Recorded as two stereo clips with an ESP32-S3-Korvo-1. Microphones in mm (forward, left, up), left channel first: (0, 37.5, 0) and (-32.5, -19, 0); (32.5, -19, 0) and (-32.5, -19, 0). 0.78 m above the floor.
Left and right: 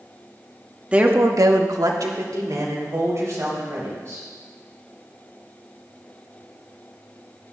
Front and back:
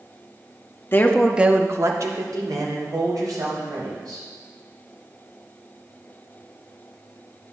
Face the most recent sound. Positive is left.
turn(degrees=-165)